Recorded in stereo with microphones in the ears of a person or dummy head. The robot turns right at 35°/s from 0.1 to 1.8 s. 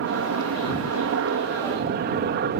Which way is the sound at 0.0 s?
115° right.